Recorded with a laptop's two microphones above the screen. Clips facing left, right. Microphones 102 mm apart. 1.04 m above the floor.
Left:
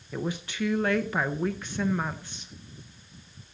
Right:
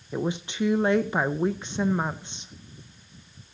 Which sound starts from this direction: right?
A woman speaking, at 0.1 s.